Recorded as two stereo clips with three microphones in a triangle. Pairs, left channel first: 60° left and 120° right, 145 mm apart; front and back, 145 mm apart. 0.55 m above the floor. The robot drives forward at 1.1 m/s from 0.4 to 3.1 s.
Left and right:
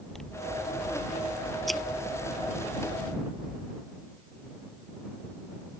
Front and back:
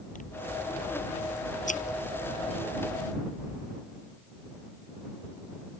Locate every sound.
0.1 s scissors: 25° right; by 3.7 s 35° right